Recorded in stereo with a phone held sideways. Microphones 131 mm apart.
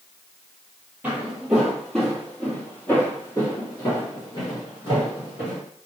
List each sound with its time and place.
1.0 s footsteps: 15° right (ahead or behind), 1.9 m; by 5.6 s 45° left (ahead or behind), 3.5 m